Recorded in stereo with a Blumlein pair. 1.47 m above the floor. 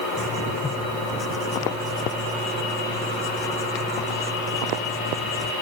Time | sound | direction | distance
0.2 | writing | 15° left | ?